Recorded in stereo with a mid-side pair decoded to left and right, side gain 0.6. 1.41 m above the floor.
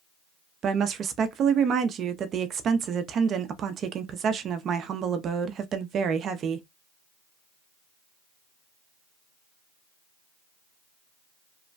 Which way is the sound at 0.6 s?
45° right.